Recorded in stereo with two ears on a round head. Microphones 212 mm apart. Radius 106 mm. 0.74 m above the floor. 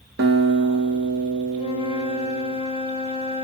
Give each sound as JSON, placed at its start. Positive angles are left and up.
{"t": 0.2, "sound": "a guitar", "side_deg": -45, "distance_m": 1.6}
{"t": 1.6, "sound": "a flute", "side_deg": 25, "distance_m": 0.8}